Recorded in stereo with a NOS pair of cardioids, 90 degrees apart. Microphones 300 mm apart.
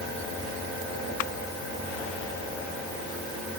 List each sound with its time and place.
Only background noise.